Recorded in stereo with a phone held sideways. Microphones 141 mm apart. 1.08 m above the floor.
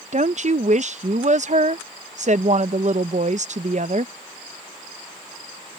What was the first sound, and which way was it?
A woman speaking, 55° right (ahead or behind).